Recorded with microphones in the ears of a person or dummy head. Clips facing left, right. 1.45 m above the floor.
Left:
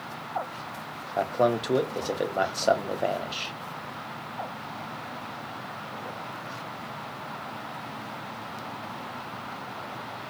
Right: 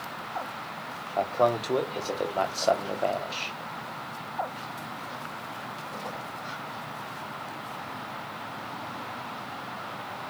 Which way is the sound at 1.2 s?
10° left (ahead or behind).